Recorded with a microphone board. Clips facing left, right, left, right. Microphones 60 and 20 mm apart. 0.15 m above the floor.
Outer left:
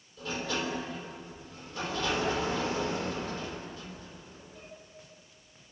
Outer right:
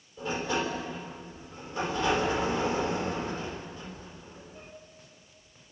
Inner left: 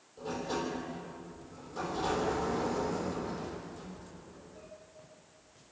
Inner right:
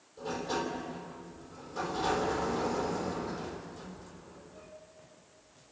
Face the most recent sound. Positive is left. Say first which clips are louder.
# outer right 4 dB, inner right 1 dB
turn(degrees=-20)  # may be behind; listen again after turning